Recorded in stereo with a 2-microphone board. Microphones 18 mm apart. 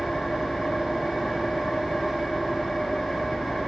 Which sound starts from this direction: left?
An engine running, at 0.0 s.